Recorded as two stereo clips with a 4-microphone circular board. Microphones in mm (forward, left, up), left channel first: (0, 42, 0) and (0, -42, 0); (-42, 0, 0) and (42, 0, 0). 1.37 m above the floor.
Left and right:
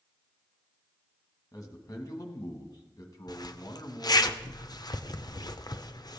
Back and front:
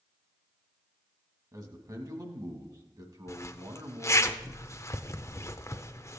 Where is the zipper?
130° left, 0.5 m.